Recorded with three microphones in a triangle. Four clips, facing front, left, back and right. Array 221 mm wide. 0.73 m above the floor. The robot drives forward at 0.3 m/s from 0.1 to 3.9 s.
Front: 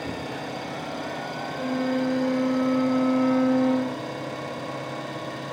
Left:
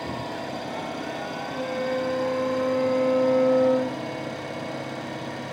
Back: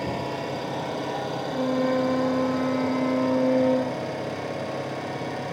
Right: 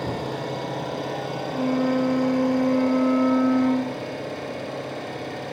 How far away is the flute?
About 3 m.